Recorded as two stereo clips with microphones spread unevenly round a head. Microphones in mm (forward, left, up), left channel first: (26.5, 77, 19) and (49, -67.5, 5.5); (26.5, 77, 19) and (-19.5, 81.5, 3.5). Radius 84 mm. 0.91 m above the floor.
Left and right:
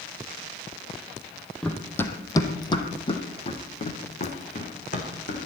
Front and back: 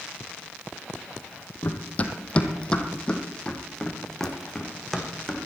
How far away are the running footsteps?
About 1.8 m.